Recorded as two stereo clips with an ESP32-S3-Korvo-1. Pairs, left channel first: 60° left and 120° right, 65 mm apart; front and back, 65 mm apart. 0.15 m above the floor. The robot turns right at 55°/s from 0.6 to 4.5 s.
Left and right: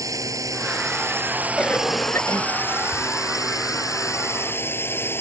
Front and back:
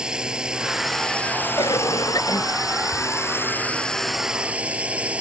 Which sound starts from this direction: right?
A drone, at 0.0 s.